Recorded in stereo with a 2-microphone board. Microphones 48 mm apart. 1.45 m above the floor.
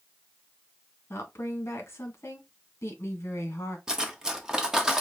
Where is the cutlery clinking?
15° right (ahead or behind), 0.8 m.